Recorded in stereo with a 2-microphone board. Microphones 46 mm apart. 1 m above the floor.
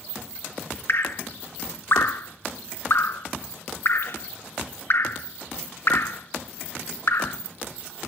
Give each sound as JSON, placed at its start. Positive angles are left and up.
{"t": 0.9, "sound": "dripping", "side_deg": 55, "distance_m": 0.5}